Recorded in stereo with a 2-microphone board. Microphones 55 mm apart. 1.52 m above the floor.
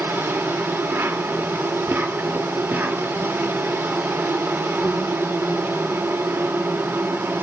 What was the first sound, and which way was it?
An insect, 45° right (ahead or behind).